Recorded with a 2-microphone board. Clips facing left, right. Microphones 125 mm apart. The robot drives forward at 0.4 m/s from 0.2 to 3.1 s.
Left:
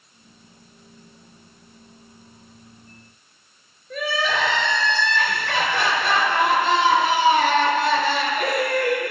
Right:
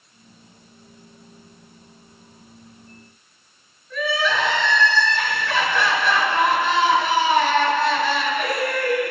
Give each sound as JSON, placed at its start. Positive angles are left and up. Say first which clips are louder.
{"t": 3.9, "sound": "crying", "louder": "right 2 dB", "side_deg": 60, "distance_m": 3.0}